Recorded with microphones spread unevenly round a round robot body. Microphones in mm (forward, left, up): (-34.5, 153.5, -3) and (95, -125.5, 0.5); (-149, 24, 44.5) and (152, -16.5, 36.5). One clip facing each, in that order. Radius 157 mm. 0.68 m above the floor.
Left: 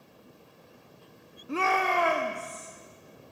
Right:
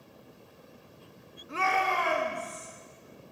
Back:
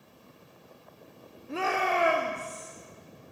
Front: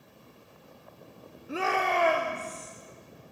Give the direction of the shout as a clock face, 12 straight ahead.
10 o'clock.